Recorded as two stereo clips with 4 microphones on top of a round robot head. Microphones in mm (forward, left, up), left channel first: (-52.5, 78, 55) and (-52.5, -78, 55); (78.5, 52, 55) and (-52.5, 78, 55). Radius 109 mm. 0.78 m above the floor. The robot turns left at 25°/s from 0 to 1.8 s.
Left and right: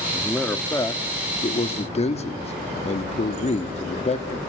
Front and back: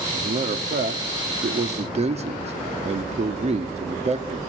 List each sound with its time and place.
0.1 s a man speaking: 175° left, 1.6 m; by 4.4 s 135° left, 1.6 m